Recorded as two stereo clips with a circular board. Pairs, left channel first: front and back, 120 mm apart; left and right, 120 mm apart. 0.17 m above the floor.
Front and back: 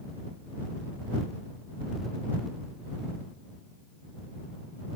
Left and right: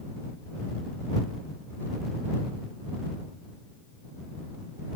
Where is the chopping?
No chopping in this recording.